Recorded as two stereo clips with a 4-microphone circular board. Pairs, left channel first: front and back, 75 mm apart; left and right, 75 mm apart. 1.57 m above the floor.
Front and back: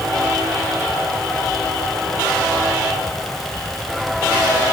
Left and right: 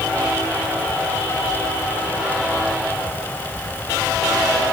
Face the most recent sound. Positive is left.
No sound to turn to.